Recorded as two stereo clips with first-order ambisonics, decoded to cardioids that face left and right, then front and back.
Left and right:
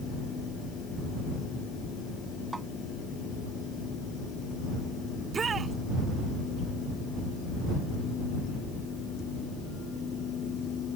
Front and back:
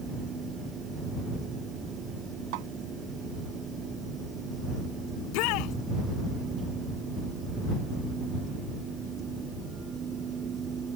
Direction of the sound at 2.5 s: 175° right.